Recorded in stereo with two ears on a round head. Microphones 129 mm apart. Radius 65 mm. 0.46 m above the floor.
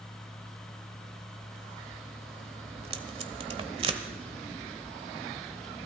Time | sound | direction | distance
2.8 | tape being pulled | 40° right (ahead or behind) | 1.2 m